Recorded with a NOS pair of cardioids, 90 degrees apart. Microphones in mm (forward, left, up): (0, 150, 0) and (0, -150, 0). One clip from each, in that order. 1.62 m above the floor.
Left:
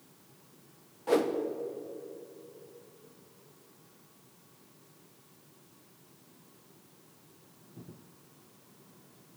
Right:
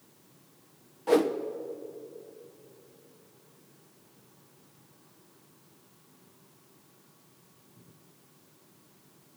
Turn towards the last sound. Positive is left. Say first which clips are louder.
# right 3 dB
turn(degrees=-15)